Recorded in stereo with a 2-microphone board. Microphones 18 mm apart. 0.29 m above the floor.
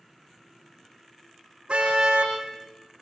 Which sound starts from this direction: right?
A car horn, at 1.7 s.